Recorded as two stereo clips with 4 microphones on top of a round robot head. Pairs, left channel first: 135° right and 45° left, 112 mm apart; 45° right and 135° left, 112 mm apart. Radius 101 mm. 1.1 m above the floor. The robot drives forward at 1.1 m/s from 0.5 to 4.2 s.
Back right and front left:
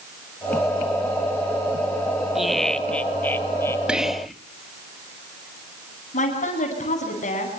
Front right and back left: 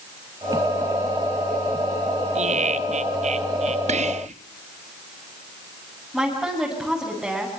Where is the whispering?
125° left, 1.9 m; by 4.3 s 130° left, 2 m.